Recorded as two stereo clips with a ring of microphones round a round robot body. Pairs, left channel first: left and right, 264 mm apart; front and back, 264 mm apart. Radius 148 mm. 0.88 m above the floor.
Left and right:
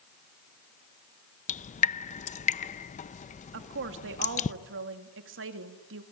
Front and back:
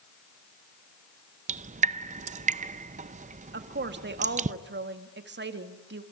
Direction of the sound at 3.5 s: 135° right.